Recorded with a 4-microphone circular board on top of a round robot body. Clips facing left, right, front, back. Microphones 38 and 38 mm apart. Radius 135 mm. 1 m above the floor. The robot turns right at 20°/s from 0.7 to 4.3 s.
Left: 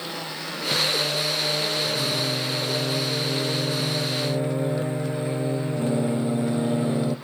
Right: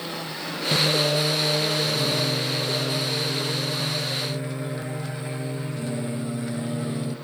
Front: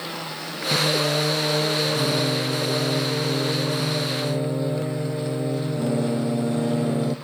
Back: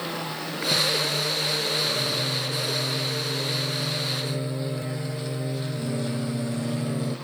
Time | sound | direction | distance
0.7 | singing | 30° right | 0.6 m